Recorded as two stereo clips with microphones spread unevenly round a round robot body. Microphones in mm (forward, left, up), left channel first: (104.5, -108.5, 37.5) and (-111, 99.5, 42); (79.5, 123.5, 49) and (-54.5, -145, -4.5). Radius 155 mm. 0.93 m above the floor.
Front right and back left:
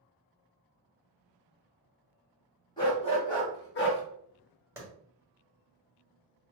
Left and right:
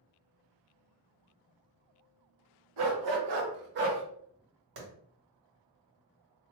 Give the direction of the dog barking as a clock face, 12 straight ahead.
4 o'clock.